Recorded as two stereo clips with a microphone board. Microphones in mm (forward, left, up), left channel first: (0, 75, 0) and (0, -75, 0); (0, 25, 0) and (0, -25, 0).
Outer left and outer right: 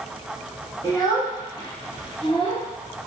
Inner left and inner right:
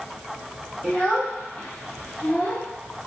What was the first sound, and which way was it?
A child speaking, 25° left (ahead or behind).